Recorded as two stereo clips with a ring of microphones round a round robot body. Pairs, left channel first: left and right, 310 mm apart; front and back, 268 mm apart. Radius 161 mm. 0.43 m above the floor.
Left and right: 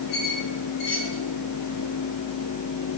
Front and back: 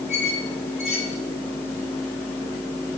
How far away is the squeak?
About 5 m.